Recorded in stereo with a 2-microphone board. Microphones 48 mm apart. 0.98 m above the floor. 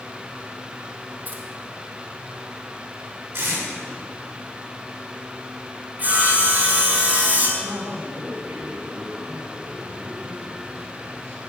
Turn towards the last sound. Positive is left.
turn(degrees=-85)